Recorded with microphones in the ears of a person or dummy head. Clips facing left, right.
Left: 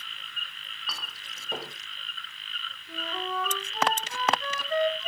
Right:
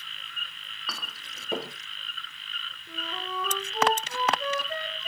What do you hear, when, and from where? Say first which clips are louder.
0.9 s a clink: right 2 dB; 70° right (ahead or behind), 1.5 m
2.9 s a flute: left 3 dB; 10° right (ahead or behind), 6 m